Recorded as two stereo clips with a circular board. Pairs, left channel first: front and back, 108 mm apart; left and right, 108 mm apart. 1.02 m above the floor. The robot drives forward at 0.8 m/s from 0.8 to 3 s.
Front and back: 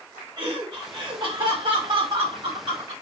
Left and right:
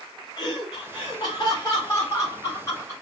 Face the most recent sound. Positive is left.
turn(degrees=150)